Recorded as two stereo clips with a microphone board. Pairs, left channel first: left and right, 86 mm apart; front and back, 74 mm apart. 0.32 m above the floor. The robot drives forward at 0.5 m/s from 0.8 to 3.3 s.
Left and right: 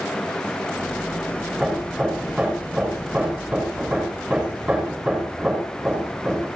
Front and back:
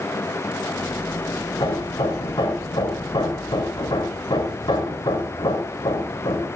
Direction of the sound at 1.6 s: 10° right.